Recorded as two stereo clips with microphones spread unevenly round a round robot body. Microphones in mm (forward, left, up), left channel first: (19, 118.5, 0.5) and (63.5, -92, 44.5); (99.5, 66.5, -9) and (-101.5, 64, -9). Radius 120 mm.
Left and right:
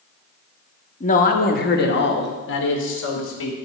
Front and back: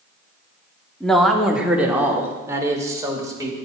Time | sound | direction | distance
1.0 | a man speaking | 85° left | 1.0 m